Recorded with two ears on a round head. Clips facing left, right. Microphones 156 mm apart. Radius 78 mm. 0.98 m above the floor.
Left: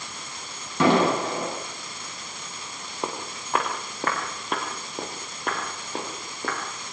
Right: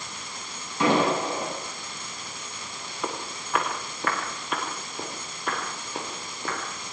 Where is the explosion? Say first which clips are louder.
Left 2 dB; 55° left (ahead or behind), 8.5 m.